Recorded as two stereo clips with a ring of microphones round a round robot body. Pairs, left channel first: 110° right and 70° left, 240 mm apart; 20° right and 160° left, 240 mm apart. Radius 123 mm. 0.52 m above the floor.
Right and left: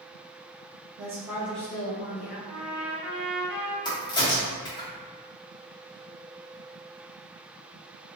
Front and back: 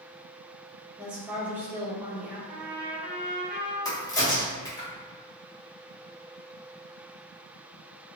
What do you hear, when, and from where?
1.0 s a woman speaking: 80° left, 0.9 m; by 2.4 s 120° right, 1.1 m
2.5 s a trumpet: 80° left, 1.9 m
3.9 s a crack: 75° right, 1.1 m